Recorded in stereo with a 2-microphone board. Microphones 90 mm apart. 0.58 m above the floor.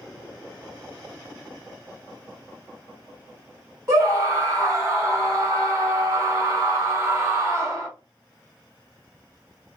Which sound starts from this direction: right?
A scream, at 3.9 s.